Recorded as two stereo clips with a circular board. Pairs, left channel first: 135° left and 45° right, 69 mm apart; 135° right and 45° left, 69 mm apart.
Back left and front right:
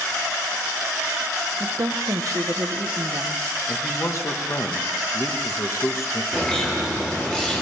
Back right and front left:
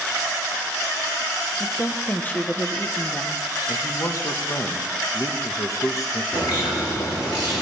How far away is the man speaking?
About 1.3 m.